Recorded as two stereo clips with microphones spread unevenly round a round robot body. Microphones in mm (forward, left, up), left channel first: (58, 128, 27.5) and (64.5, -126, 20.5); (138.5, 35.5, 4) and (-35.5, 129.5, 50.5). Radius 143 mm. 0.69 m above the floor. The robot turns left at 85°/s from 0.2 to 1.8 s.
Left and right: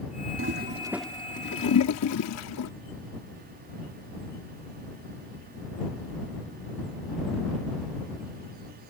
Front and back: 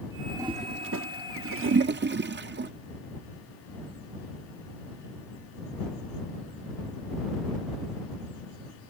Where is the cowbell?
I don't hear a cowbell.